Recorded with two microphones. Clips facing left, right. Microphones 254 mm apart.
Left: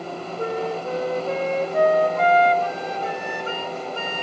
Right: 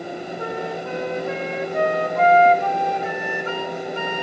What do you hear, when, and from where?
0.4 s a flute: 40° left (ahead or behind), 1.9 m